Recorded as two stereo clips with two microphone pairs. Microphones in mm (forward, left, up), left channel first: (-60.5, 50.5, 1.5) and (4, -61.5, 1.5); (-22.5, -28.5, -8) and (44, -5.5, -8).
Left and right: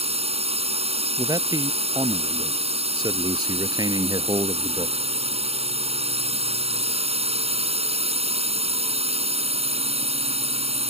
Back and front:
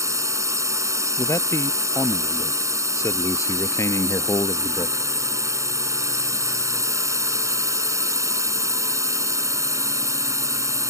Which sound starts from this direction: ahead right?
A drone, at 0.0 s.